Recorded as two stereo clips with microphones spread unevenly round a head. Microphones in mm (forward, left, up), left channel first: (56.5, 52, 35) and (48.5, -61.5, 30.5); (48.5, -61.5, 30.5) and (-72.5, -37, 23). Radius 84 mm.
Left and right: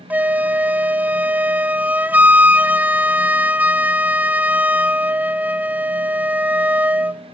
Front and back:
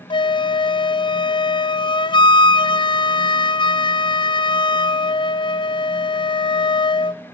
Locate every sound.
0.1 s a flute: 30° right, 0.6 m